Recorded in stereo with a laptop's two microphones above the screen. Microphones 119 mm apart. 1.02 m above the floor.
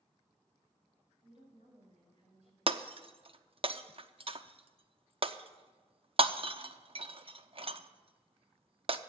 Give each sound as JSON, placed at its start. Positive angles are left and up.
{"t": 1.2, "sound": "a woman speaking", "side_deg": -70, "distance_m": 6.0}
{"t": 2.7, "sound": "breaking glass", "side_deg": -50, "distance_m": 0.7}